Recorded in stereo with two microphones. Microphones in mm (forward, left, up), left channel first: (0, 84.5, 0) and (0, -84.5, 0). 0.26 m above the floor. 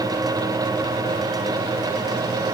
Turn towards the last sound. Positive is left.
No sound to turn to.